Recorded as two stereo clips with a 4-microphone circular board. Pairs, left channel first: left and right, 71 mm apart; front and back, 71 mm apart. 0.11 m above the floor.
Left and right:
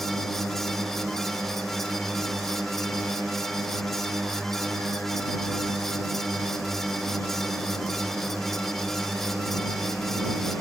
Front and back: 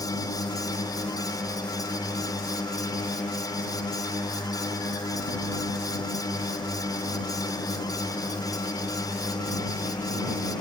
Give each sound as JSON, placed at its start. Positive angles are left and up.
{"t": 0.0, "sound": "a drone", "azimuth_deg": 0}